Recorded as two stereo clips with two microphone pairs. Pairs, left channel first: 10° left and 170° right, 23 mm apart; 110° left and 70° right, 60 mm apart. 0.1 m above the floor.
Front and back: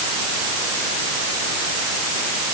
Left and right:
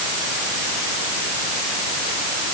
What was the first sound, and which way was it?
Only background noise.